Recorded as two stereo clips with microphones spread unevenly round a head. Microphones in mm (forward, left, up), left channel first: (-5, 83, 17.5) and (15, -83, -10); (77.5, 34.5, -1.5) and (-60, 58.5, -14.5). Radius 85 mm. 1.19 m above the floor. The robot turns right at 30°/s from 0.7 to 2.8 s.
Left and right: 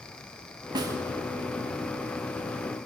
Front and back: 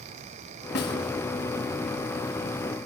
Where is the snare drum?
15° right, 1.9 m; by 1.0 s 10° right, 1.9 m.